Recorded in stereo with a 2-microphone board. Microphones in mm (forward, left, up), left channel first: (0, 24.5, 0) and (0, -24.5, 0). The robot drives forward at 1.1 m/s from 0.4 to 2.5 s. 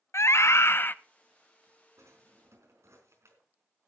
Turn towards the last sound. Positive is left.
turn(degrees=-75)  # may be behind; listen again after turning